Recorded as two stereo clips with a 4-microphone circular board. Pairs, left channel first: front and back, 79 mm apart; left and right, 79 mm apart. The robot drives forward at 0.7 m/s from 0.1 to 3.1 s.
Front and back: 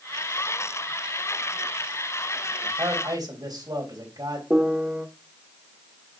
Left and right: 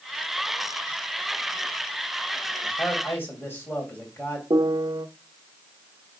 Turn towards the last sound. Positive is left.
turn(degrees=-105)